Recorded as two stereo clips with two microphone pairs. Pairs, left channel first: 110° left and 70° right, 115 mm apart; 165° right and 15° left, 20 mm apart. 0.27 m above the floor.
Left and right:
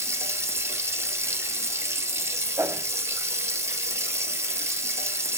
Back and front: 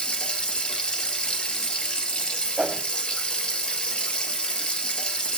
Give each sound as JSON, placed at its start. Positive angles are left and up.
{"t": 0.0, "sound": "running water", "azimuth_deg": -135, "distance_m": 1.6}
{"t": 2.6, "sound": "a whoosh", "azimuth_deg": -10, "distance_m": 0.6}